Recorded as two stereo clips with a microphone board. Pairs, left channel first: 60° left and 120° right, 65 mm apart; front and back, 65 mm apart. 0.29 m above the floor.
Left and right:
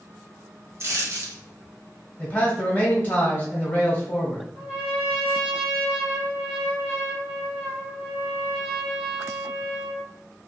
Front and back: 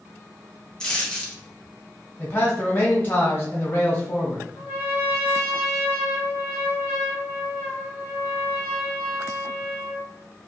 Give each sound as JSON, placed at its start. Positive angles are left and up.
{"t": 0.8, "sound": "a dropped coin", "azimuth_deg": -80, "distance_m": 0.9}
{"t": 2.2, "sound": "a man speaking", "azimuth_deg": 10, "distance_m": 1.1}
{"t": 4.5, "sound": "a trumpet", "azimuth_deg": -175, "distance_m": 1.6}